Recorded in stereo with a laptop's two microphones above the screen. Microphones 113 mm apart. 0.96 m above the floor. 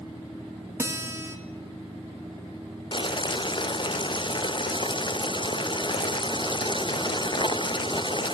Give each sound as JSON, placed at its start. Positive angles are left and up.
{"t": 0.8, "sound": "a guitar", "side_deg": -20, "distance_m": 1.1}
{"t": 2.9, "sound": "boiling", "side_deg": 45, "distance_m": 0.5}